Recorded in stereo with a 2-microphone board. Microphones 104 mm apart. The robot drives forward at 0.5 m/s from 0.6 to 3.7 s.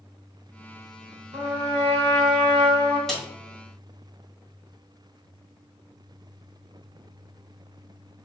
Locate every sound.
1.3 s a trumpet: 80° right, 1.6 m; by 3.0 s 65° right (ahead or behind), 1.8 m
3.1 s a snare drum: 5° left (ahead or behind), 1.7 m